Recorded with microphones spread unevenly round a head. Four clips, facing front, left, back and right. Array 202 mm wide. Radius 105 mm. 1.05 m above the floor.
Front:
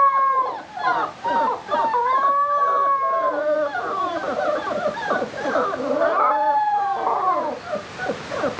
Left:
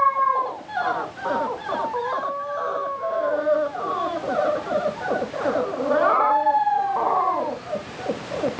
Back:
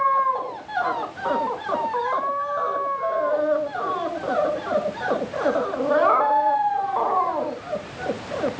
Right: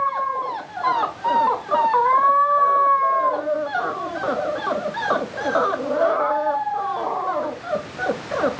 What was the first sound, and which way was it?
Only background noise.